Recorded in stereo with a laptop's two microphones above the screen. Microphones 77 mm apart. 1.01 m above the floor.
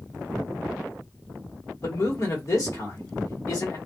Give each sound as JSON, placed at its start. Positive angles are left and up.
{"t": 1.8, "sound": "a man speaking", "side_deg": 50, "distance_m": 1.4}